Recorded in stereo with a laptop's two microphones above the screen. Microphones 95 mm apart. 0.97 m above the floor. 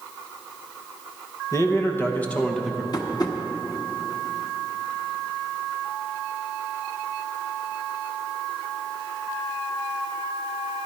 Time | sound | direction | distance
1.5 | a man speaking | 35° left (ahead or behind) | 1.3 m
2.9 | tapping | 45° left (ahead or behind) | 1.3 m